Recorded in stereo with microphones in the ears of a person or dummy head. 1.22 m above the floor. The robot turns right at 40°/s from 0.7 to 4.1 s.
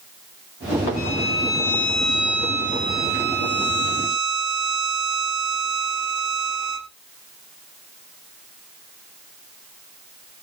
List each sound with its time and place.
1.0 s a violin: 140° left, 0.8 m; by 6.9 s 95° right, 0.8 m